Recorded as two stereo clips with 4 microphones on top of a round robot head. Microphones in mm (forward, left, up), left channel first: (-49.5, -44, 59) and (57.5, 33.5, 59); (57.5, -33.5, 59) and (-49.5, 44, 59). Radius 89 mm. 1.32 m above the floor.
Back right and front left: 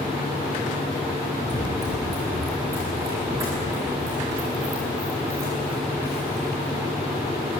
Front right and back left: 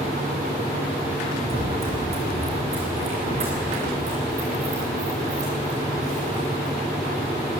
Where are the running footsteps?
95° left, 5 m; by 6.8 s 110° left, 9.5 m.